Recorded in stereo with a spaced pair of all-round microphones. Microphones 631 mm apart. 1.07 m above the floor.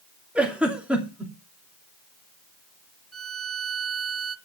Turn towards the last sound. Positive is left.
turn(degrees=-25)  # may be behind; listen again after turning